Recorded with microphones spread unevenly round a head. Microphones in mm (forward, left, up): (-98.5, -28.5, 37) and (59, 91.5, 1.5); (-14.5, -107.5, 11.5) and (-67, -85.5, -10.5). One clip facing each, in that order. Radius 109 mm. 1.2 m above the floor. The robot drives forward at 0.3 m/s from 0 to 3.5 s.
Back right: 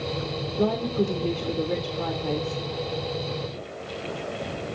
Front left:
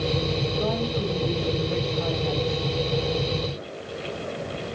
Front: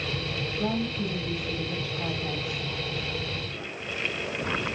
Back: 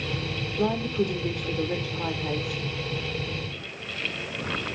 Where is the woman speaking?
Straight behind, 3 m.